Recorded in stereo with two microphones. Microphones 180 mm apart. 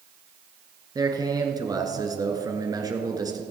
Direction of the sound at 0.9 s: 20° right (ahead or behind).